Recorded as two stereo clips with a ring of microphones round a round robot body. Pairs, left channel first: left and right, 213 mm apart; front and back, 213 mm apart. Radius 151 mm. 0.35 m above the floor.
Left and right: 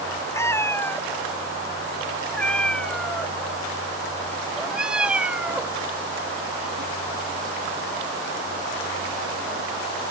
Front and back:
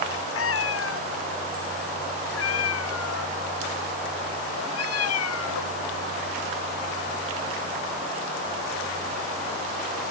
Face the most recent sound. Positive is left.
turn(degrees=-10)